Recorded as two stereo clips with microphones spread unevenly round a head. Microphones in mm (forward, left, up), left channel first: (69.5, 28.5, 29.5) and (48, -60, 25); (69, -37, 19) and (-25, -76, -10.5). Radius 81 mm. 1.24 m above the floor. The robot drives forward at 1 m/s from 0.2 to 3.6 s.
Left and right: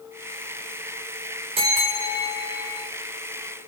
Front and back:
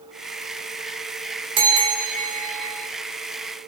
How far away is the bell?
About 1.3 m.